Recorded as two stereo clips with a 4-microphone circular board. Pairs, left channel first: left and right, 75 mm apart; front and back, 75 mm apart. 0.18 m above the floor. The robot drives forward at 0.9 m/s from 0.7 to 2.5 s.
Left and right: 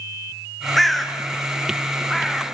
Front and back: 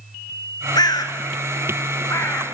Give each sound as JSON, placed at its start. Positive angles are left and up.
{"t": 0.8, "sound": "a bird", "azimuth_deg": 0, "distance_m": 2.0}